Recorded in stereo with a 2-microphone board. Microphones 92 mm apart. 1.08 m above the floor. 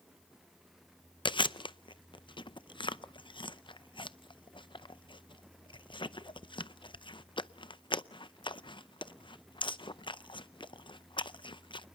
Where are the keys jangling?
No keys jangling in this recording.